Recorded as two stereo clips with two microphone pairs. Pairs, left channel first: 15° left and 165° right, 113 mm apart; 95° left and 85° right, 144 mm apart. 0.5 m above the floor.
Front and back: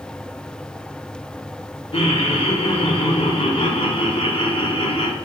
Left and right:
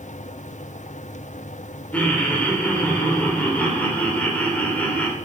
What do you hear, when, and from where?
1.9 s laughter: 15° left, 1.5 m